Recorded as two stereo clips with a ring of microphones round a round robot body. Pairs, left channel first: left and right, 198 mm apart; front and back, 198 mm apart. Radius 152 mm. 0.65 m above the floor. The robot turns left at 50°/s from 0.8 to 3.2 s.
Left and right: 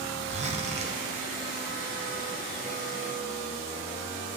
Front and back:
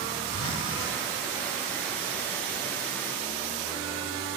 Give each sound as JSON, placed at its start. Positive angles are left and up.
{"t": 0.3, "sound": "a zipper", "azimuth_deg": -30, "distance_m": 1.6}